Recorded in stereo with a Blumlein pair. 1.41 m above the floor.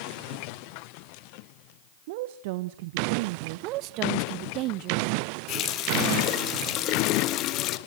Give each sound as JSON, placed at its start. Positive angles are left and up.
{"t": 2.1, "sound": "a woman speaking", "azimuth_deg": -50, "distance_m": 1.0}
{"t": 3.6, "sound": "a woman speaking", "azimuth_deg": -40, "distance_m": 1.0}
{"t": 5.5, "sound": "a running tap", "azimuth_deg": 35, "distance_m": 1.2}